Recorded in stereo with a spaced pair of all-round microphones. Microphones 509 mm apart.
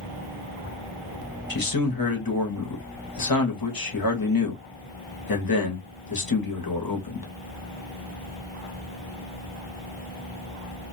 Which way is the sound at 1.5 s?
45° left (ahead or behind).